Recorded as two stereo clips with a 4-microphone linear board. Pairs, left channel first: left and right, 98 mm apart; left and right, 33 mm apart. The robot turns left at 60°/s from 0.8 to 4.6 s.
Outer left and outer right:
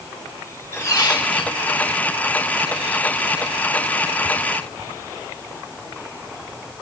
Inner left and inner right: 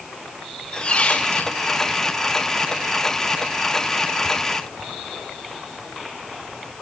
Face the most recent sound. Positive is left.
turn(degrees=-70)